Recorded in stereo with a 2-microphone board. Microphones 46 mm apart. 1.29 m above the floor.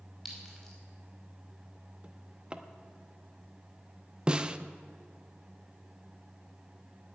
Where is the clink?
Centre (ahead or behind), 5 m.